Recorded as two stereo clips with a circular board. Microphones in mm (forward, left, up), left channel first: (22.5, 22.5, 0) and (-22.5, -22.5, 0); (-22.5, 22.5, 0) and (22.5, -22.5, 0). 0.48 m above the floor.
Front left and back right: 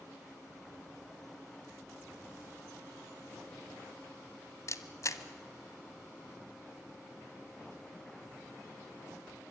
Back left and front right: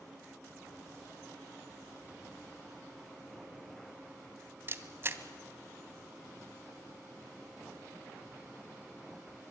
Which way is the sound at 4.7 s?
5° left.